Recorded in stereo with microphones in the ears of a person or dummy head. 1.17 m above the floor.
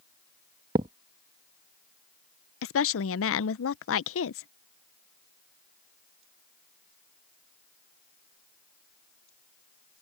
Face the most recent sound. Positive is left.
turn(degrees=60)  # may be behind; listen again after turning